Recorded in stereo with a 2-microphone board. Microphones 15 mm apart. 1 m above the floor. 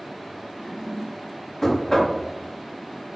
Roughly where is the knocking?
Left.